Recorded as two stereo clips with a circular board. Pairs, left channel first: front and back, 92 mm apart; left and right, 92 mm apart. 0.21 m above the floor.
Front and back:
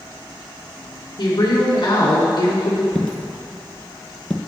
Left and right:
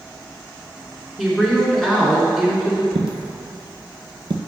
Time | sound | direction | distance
1.2 | a woman speaking | 5° left | 2.5 m
3.0 | a dropped coin | 80° right | 0.7 m